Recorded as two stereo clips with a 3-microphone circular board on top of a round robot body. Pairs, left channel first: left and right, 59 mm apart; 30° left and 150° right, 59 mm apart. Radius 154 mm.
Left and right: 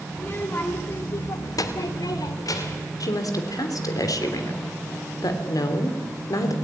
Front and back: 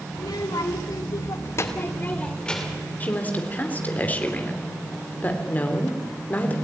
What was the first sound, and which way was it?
A child speaking, 30° left.